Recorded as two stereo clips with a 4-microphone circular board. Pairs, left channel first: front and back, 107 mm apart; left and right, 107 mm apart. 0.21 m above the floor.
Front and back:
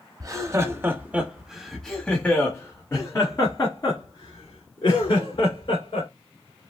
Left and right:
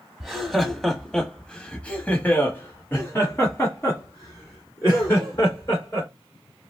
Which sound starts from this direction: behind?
Laughter, at 0.2 s.